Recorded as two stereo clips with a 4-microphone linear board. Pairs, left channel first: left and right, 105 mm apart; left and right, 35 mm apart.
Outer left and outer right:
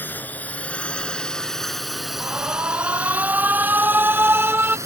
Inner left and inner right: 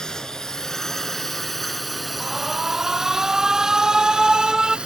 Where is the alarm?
20° right (ahead or behind).